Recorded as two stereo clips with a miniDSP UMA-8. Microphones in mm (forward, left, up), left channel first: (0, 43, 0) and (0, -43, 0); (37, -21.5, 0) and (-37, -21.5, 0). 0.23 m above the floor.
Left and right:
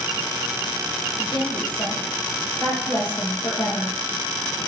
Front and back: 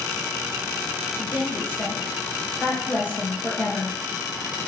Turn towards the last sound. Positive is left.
turn(degrees=65)